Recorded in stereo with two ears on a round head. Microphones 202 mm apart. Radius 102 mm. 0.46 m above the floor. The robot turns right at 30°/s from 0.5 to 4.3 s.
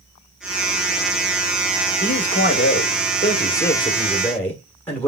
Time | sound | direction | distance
2.0 | a man speaking | 95° left | 1.6 m